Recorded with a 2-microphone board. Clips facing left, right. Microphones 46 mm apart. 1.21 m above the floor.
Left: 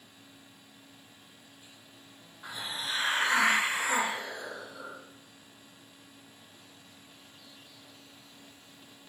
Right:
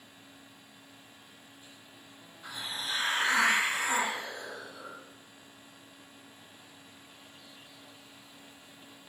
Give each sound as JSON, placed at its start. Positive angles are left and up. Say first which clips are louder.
{"t": 2.4, "sound": "a hiss", "louder": "left 1 dB", "side_deg": 20, "distance_m": 0.7}